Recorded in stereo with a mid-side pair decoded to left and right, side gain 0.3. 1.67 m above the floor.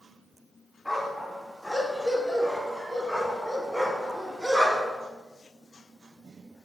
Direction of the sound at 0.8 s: 10° left.